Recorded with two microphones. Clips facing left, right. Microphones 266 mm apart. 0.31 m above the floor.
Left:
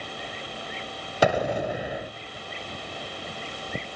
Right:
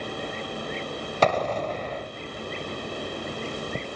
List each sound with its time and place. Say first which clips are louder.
1.2 s an explosion: left 1 dB; 10° left (ahead or behind), 0.8 m